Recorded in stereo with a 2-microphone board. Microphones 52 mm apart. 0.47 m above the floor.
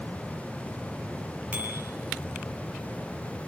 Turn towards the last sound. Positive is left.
turn(degrees=-35)  # may be behind; listen again after turning